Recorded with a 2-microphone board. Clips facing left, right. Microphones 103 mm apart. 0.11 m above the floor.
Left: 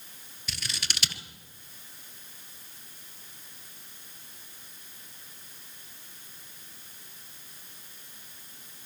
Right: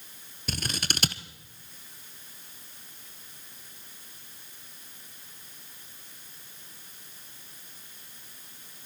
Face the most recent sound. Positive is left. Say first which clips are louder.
# right 6 dB
turn(degrees=-45)  # may be behind; listen again after turning